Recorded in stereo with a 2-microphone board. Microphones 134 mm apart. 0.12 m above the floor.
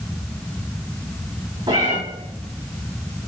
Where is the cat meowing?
40° right (ahead or behind), 4 m.